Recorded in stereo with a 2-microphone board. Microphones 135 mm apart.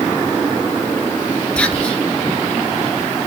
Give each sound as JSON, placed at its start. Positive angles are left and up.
{"t": 1.6, "sound": "whispering", "side_deg": 10, "distance_m": 2.0}